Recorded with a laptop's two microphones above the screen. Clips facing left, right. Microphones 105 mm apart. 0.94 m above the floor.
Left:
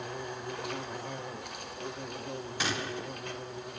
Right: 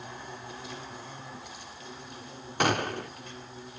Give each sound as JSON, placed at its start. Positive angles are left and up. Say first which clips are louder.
{"t": 0.0, "sound": "an insect", "louder": "left 4 dB", "side_deg": 65, "distance_m": 2.5}
{"t": 2.6, "sound": "a gunshot", "louder": "right 9 dB", "side_deg": -50, "distance_m": 0.7}